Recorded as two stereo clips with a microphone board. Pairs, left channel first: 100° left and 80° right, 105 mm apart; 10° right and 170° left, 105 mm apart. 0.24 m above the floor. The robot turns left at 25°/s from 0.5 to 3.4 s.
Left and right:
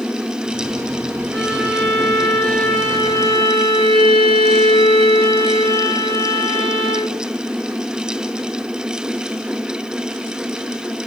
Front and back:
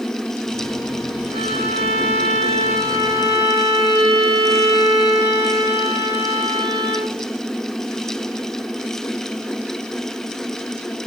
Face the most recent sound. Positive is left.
turn(degrees=155)